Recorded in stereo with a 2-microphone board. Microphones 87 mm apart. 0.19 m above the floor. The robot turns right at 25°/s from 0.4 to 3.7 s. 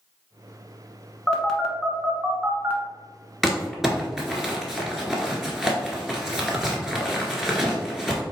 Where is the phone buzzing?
10° left (ahead or behind), 1.0 m; by 2.8 s 20° right (ahead or behind), 1.0 m.